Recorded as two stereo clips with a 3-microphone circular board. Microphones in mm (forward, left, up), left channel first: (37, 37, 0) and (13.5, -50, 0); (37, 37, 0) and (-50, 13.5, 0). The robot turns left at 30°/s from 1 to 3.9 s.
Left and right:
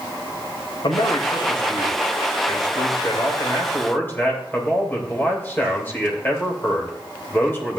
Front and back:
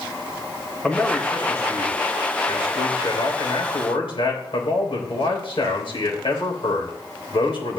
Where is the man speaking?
95° left, 3 m; by 7.8 s 5° left, 3 m.